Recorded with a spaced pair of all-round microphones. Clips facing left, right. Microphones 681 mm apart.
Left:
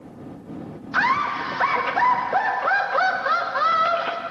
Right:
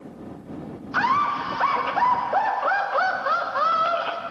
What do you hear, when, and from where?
0.9 s laughter: 50° left (ahead or behind)